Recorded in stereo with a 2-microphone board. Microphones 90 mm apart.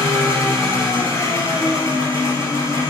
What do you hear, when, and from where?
0.0 s an engine running: 40° left (ahead or behind), 0.7 m